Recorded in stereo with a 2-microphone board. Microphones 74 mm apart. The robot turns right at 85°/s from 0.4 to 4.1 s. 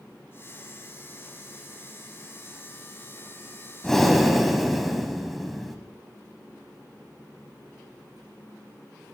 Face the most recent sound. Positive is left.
turn(degrees=0)  # may be behind; listen again after turning